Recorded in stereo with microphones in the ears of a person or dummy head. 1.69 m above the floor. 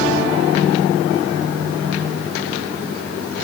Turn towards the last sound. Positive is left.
No sound to turn to.